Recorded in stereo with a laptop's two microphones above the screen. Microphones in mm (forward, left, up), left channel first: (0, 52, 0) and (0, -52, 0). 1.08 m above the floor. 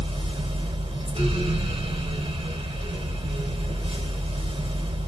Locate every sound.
0.0 s a fan: 85° right, 3.5 m